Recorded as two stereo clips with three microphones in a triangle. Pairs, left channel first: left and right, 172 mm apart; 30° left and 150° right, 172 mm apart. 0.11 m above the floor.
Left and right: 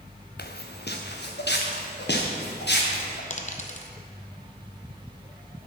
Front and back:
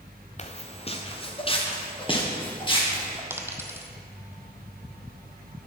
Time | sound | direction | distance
0.4 | footsteps | 75° left | 0.7 m
3.3 | a dropped coin | 135° left | 0.8 m